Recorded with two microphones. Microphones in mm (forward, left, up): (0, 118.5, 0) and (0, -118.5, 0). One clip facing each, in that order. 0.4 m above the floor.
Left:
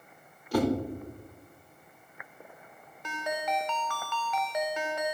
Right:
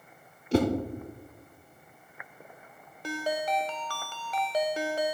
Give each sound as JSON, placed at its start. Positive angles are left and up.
{"t": 0.5, "sound": "a whoosh", "side_deg": -25, "distance_m": 1.0}
{"t": 3.0, "sound": "a ringtone", "side_deg": -35, "distance_m": 0.5}